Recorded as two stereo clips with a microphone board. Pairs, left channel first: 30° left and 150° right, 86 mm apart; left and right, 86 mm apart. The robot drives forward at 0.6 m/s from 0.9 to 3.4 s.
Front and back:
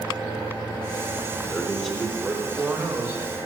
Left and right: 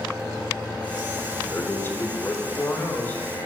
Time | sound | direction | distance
1.4 | a man speaking | 85° left | 0.9 m